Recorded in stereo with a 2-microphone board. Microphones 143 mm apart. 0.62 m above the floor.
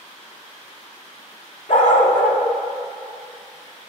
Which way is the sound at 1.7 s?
70° left (ahead or behind).